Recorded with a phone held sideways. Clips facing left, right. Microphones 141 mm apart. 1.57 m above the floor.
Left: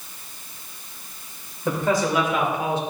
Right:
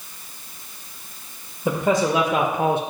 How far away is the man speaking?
About 1.0 m.